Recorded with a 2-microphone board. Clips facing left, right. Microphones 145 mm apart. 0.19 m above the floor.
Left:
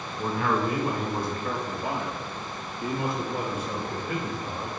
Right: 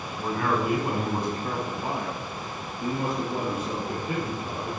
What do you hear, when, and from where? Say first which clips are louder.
0.2 s a man speaking: even; 5° left (ahead or behind), 1.1 m; by 4.8 s 45° right (ahead or behind), 3 m